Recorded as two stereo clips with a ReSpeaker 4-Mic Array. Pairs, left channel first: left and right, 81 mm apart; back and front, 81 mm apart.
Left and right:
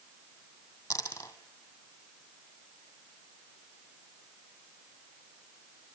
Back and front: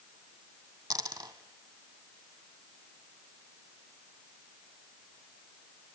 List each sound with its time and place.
0.9 s a dropped coin: 35° left, 2 m